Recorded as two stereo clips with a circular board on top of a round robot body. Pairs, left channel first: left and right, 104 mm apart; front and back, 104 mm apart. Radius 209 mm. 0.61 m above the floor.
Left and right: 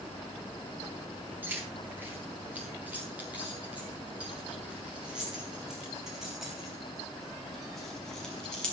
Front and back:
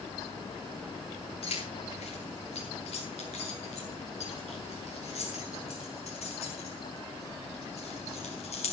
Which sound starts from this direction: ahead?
Keys jangling, at 1.4 s.